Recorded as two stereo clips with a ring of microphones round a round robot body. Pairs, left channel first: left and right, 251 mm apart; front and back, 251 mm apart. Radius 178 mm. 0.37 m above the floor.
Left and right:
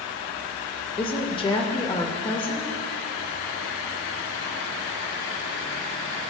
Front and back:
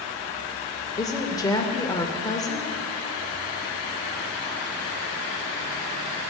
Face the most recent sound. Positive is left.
turn(degrees=55)